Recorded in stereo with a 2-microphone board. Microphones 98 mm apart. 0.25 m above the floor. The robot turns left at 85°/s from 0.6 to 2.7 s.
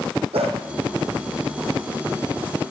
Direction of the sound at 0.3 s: 80° right.